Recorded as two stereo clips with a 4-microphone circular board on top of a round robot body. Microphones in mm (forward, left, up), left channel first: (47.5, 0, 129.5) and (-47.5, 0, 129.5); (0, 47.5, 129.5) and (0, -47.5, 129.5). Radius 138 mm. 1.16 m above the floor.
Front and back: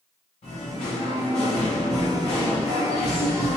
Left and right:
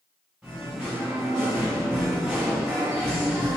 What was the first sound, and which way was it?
Singing, 10° right.